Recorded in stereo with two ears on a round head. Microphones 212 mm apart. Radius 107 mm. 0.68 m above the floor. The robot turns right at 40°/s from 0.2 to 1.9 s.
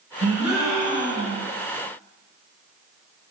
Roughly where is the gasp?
Ahead.